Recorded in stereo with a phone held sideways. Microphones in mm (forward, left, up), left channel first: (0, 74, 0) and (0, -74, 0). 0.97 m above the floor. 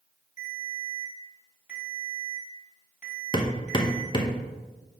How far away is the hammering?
About 0.8 m.